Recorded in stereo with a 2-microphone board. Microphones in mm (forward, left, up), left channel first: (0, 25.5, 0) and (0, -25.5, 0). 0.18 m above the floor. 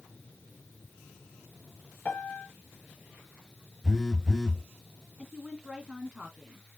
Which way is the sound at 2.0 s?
30° left (ahead or behind).